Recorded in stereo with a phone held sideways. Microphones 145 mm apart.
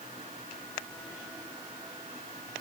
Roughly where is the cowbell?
I don't hear a cowbell.